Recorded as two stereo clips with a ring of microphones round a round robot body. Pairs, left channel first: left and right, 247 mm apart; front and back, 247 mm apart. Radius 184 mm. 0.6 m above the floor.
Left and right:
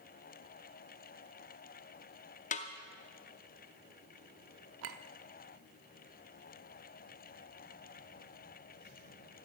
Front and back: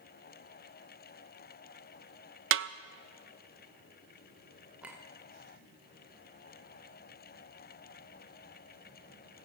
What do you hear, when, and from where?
2.5 s a snare drum: 150° left, 0.6 m
4.8 s a clink: 95° right, 0.9 m